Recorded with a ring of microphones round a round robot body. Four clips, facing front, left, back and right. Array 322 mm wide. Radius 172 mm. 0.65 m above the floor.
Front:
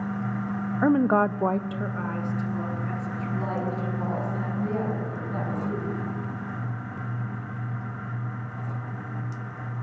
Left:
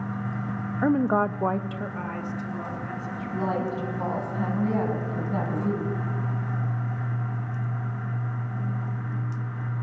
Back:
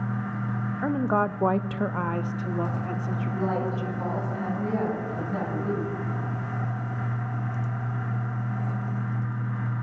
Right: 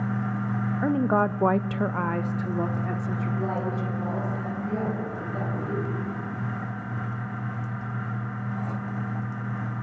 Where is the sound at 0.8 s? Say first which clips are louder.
Left 1 dB, front 4 dB; 25° left, 0.6 m; by 4.0 s 135° right, 2.5 m.